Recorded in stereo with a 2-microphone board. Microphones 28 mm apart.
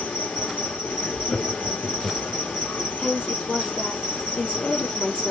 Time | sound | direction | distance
0.0 | an insect | 80° left | 0.8 m
1.3 | laughter | 30° left (ahead or behind) | 1.3 m
3.0 | a woman speaking | 45° left (ahead or behind) | 2 m